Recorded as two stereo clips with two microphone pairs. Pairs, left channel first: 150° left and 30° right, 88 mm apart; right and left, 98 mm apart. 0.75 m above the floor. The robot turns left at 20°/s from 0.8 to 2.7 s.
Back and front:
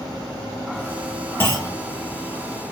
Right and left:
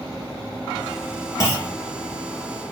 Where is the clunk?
145° right, 1.3 m; by 1.8 s 150° right, 1.3 m.